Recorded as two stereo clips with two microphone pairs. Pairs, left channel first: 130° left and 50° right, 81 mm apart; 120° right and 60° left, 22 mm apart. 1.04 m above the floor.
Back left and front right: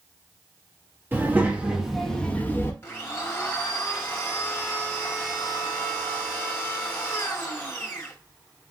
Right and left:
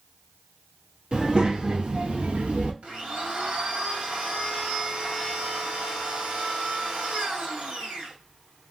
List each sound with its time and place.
1.1 s a child speaking: 15° left, 1.0 m; by 2.7 s 70° left, 0.8 m
2.8 s a blender: 70° left, 1.4 m